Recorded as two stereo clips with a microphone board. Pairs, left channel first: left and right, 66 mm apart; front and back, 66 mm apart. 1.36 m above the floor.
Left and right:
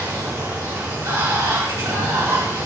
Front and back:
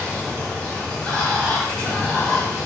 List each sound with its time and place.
0.0 s running water: 70° right, 3.5 m